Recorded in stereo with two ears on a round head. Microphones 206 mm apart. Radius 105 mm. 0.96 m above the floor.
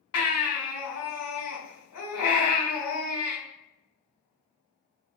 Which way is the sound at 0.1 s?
75° left (ahead or behind).